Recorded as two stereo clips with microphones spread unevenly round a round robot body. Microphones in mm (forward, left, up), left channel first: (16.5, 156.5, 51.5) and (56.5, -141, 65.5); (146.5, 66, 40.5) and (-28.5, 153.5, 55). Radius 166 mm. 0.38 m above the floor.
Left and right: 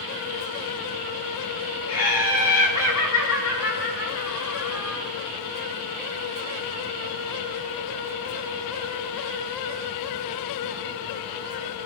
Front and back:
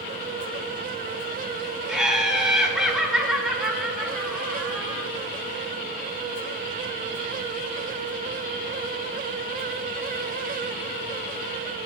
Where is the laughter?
65° left, 5 m.